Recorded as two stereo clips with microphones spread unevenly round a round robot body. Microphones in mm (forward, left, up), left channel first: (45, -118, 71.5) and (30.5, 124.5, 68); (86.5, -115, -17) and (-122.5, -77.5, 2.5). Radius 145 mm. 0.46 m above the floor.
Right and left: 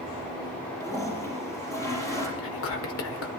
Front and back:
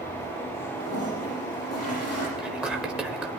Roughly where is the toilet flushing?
Ahead.